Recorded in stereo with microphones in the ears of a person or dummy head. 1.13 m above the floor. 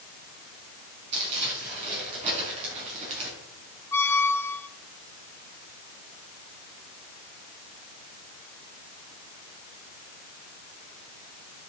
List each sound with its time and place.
1.1 s crumpling: 35° right (ahead or behind), 6 m
3.9 s a squeak: 10° left (ahead or behind), 0.6 m